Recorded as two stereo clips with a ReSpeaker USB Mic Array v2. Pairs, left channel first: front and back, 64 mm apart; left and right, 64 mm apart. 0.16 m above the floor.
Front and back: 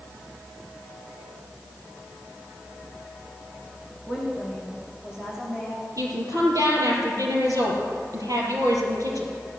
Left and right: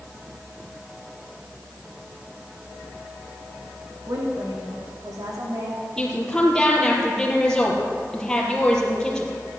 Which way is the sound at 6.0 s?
170° left.